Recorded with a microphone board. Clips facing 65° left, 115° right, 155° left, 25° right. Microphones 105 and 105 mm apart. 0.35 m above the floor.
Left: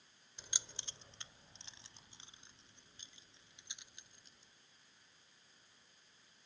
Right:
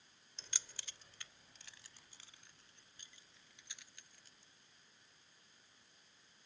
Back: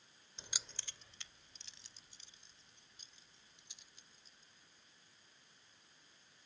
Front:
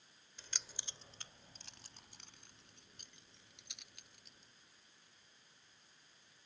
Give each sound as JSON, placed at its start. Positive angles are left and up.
{"t": 0.4, "sound": "keys jangling", "azimuth_deg": 130}